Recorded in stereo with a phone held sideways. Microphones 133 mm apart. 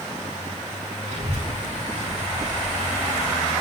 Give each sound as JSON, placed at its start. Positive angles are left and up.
{"t": 1.1, "sound": "a child speaking", "side_deg": -55, "distance_m": 6.5}